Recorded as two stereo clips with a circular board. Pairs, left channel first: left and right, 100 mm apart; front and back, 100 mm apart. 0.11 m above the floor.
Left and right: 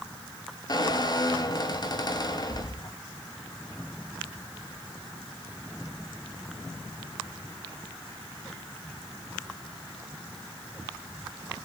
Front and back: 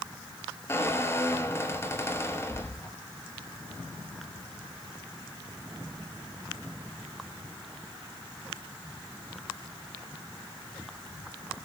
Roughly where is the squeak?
Ahead left.